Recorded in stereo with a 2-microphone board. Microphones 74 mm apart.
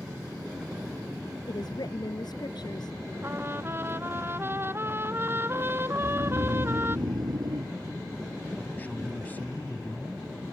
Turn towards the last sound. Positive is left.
turn(degrees=20)  # may be behind; listen again after turning